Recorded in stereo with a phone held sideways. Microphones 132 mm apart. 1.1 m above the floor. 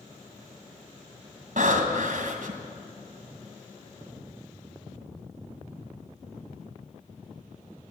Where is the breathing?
65° right (ahead or behind), 2 m.